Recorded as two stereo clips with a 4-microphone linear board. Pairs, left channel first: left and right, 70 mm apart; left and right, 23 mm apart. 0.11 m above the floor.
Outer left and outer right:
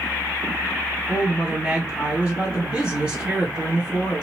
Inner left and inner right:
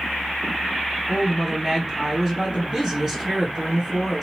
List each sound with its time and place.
1.1 s a woman speaking: 15° right (ahead or behind), 2 m